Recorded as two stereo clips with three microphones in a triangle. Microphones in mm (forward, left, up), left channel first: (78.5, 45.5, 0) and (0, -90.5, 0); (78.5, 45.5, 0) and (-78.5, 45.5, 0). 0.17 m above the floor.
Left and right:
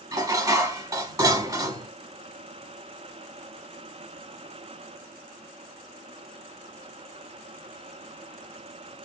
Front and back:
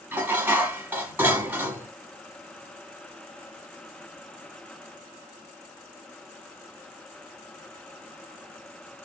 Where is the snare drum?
I don't hear a snare drum.